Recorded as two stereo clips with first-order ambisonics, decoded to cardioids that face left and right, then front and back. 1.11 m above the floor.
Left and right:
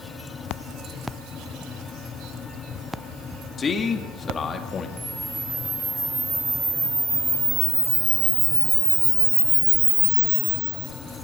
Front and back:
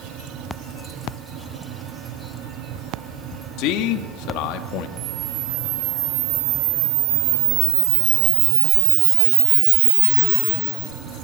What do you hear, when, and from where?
3.6 s a man speaking: 20° left, 2 m
5.0 s a camera shutter: 170° right, 1.4 m